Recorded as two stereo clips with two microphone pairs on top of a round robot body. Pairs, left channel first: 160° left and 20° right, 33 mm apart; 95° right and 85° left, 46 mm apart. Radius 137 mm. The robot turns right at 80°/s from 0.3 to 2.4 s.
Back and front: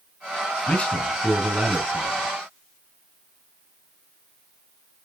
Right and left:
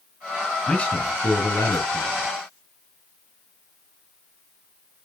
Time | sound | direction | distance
0.7 | a man speaking | 165° right | 4 m